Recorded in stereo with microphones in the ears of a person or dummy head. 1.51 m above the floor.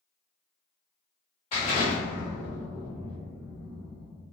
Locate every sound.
1.5 s an explosion: 30° left (ahead or behind), 1.5 m